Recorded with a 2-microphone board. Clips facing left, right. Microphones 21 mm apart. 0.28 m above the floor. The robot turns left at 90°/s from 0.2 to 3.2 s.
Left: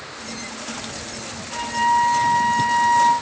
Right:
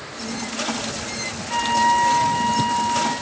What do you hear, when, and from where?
1.5 s a flute: 140° right, 3 m; by 3.1 s 75° left, 3 m